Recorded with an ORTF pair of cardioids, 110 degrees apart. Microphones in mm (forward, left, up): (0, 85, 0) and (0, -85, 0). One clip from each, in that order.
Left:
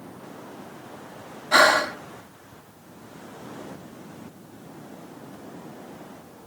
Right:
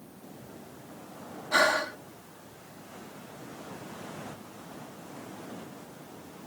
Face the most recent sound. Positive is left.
turn(degrees=55)